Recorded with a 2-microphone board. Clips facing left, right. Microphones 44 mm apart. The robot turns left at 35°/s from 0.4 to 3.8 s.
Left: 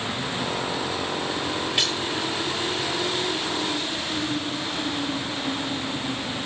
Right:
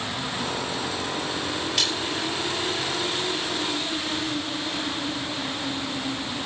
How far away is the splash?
About 8 m.